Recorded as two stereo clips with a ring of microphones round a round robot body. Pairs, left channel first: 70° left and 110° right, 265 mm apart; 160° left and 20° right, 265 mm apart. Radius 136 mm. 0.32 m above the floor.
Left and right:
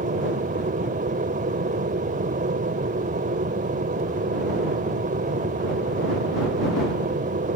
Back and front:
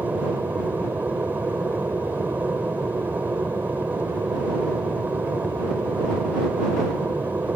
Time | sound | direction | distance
0.0 | an aircraft | 100° right | ?